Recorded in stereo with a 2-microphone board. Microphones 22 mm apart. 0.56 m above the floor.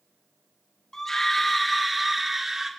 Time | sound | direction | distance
0.9 | a scream | 25° left (ahead or behind) | 1.2 m